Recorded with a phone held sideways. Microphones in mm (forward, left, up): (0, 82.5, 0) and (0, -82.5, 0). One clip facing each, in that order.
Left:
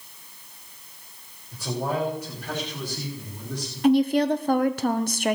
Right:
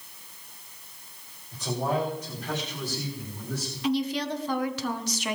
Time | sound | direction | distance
1.5 | a man speaking | 10° left (ahead or behind) | 5 m
3.8 | a woman speaking | 50° left (ahead or behind) | 0.8 m